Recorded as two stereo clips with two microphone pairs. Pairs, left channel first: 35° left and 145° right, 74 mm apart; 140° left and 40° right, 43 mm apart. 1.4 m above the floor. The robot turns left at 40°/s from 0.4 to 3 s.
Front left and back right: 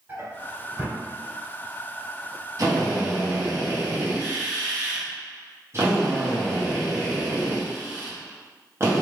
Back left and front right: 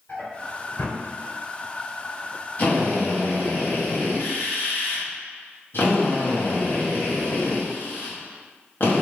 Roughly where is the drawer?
Behind.